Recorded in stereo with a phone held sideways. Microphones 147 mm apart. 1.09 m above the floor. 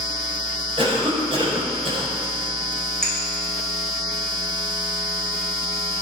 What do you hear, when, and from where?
0.8 s a cough: 40° right (ahead or behind), 7 m
3.0 s a clink: 85° right, 5 m